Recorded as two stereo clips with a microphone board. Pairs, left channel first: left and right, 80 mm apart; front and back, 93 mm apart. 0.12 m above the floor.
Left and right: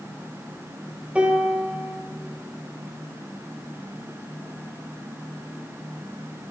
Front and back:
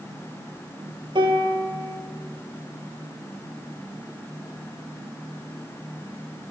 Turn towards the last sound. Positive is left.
turn(degrees=-165)